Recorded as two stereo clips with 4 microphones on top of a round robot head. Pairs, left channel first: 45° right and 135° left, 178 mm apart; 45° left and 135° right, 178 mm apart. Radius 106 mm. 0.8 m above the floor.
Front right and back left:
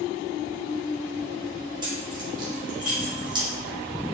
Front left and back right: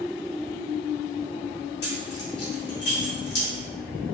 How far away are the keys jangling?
About 1.5 m.